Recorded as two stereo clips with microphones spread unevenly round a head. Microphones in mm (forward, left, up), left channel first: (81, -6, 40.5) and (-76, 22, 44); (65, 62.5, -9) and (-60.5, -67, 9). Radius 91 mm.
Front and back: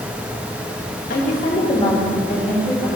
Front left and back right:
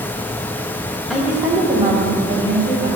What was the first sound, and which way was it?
A woman speaking, 50° right.